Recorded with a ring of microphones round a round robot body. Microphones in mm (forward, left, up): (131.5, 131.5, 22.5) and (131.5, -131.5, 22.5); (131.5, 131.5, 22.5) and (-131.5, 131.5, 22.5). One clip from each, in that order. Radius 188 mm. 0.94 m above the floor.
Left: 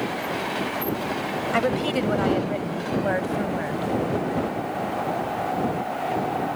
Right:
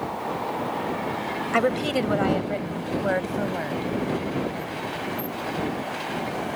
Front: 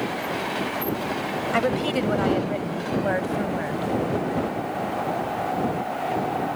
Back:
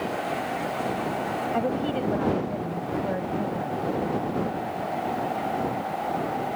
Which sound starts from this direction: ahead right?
A woman speaking, at 1.5 s.